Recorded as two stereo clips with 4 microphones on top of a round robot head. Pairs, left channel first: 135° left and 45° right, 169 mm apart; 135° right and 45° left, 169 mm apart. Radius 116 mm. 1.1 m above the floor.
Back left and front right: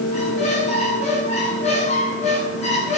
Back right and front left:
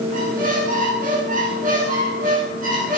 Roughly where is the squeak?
Left.